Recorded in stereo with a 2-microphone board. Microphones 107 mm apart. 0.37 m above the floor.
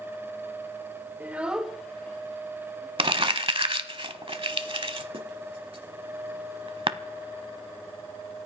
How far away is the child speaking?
About 1.0 m.